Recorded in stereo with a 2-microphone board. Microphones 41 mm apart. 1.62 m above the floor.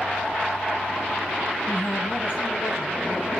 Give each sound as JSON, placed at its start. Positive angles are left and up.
{"t": 1.7, "sound": "a man speaking", "side_deg": 45, "distance_m": 6.5}